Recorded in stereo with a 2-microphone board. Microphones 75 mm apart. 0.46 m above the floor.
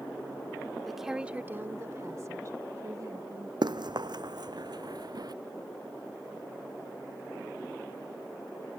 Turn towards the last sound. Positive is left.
turn(degrees=-60)  # may be behind; listen again after turning